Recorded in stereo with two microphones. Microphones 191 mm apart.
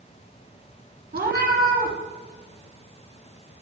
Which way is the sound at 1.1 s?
55° right (ahead or behind).